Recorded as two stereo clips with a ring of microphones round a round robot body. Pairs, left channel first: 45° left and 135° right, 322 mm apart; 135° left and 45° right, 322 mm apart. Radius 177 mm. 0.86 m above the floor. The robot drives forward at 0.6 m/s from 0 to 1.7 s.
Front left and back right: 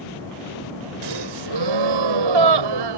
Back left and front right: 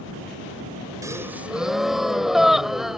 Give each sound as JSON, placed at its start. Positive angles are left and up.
{"t": 1.0, "sound": "a gasp", "azimuth_deg": -125}